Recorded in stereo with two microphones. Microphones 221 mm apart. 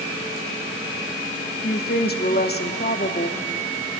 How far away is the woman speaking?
About 0.8 m.